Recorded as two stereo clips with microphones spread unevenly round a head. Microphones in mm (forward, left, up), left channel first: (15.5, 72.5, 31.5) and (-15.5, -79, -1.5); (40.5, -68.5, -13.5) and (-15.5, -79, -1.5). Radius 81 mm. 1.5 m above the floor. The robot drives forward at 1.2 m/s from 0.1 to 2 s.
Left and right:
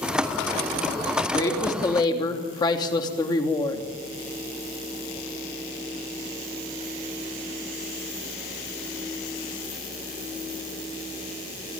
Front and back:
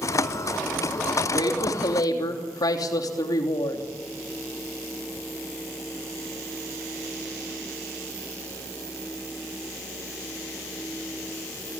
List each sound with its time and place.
1.3 s a woman speaking: 10° left, 3.5 m; by 3.8 s 15° left, 3 m